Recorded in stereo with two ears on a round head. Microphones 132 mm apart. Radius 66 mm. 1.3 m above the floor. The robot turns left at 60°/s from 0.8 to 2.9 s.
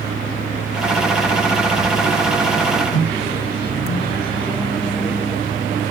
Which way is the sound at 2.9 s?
15° left (ahead or behind).